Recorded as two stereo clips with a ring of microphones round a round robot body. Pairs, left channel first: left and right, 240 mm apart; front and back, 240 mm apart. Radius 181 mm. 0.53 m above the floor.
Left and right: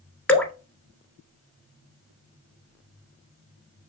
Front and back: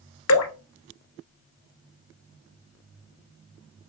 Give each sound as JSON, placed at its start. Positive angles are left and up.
{"t": 0.3, "sound": "dripping", "azimuth_deg": 5, "distance_m": 1.3}